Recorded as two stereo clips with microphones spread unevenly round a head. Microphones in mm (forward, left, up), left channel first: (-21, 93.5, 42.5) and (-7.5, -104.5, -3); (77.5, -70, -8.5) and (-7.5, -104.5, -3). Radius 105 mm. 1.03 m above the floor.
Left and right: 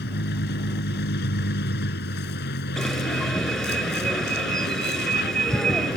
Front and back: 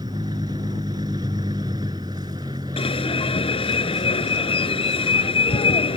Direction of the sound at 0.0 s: 130° left.